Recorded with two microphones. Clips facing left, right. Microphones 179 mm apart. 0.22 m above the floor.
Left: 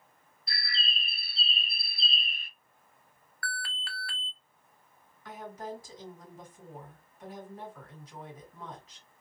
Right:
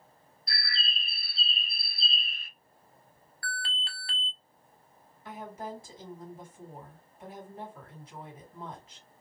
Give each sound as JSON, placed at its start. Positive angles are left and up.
{"t": 0.5, "sound": "a bird", "side_deg": -40, "distance_m": 1.9}
{"t": 3.4, "sound": "an alarm", "side_deg": -25, "distance_m": 0.6}
{"t": 5.2, "sound": "a woman speaking", "side_deg": -25, "distance_m": 2.0}